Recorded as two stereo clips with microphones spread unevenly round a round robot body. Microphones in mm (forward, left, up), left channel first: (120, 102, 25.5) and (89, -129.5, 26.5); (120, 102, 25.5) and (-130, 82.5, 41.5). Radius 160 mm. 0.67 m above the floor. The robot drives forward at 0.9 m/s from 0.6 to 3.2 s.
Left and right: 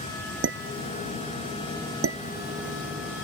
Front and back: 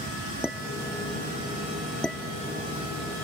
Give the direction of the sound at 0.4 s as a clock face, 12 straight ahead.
3 o'clock.